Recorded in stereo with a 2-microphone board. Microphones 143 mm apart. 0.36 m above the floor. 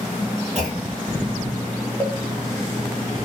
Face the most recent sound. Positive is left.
turn(degrees=15)  # may be behind; listen again after turning